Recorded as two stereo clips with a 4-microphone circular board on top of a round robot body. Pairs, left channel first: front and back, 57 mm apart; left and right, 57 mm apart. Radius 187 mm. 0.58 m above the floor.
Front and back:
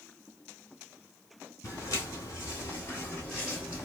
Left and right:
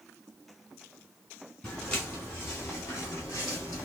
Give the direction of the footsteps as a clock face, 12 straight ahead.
11 o'clock.